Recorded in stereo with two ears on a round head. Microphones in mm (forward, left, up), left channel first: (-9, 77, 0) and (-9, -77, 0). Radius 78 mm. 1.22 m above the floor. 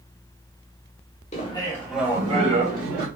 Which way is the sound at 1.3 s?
40° left (ahead or behind).